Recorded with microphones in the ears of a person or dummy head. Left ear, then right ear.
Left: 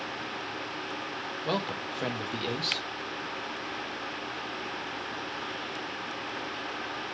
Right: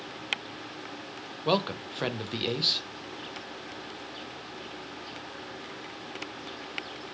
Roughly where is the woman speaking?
Centre.